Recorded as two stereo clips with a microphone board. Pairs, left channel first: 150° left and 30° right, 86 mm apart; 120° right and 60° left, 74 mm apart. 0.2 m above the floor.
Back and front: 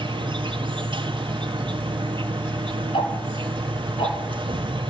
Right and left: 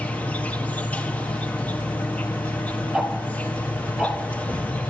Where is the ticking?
145° left, 4 m.